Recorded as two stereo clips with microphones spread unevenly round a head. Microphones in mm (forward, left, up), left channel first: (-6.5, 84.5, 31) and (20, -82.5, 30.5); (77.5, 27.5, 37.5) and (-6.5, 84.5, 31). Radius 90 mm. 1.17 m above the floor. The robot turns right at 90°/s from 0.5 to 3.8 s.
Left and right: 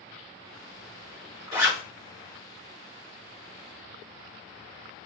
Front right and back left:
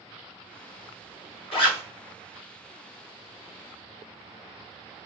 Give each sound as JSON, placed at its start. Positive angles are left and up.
{"t": 1.5, "sound": "a zipper", "azimuth_deg": -15, "distance_m": 1.7}